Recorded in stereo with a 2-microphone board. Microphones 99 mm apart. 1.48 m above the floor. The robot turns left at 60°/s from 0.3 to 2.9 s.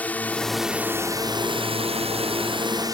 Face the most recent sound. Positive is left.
turn(degrees=-140)